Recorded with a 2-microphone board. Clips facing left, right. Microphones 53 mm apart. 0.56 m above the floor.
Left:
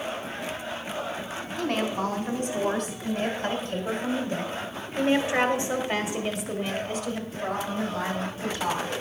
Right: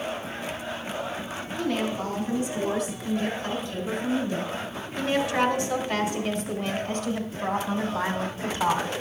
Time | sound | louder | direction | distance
1.6 | a woman speaking | left 1 dB | 65° left (ahead or behind) | 3.5 m